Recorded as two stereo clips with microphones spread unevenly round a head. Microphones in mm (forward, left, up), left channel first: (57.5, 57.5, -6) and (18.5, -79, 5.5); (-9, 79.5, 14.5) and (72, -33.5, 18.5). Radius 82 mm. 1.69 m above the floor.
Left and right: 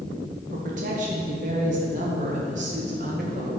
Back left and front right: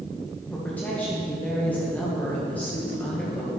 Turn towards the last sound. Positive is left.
turn(degrees=-150)